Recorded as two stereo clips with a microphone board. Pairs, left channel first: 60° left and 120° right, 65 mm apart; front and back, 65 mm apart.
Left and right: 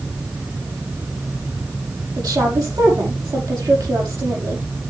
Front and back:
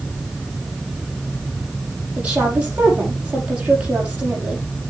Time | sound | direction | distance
2.2 | a woman speaking | 110° right | 6.5 m